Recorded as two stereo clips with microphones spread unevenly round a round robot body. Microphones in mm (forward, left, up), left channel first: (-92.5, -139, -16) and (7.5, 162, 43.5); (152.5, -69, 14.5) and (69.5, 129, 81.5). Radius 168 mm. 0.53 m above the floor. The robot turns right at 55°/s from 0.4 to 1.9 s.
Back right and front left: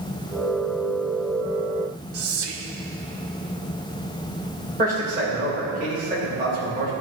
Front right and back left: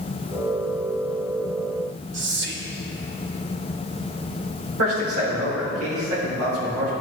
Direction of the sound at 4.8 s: 135° left.